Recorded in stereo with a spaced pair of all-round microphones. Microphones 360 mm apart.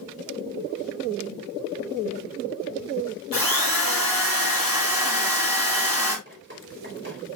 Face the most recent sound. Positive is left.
turn(degrees=-35)  # may be behind; listen again after turning